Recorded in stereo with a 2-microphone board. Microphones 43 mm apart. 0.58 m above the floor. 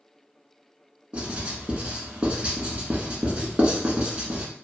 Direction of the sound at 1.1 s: 30° right (ahead or behind).